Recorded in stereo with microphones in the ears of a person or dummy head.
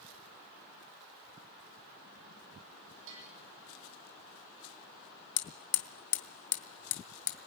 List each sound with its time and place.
3.1 s a bell: 70° right (ahead or behind), 6.5 m
5.4 s hammering: 65° left (ahead or behind), 1.9 m